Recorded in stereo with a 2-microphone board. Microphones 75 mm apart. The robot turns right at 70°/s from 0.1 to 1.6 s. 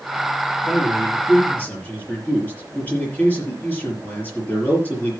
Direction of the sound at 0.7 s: 90° left.